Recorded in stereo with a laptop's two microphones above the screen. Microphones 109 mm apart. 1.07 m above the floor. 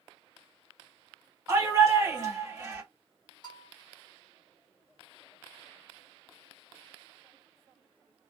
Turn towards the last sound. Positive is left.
turn(degrees=40)  # may be behind; listen again after turning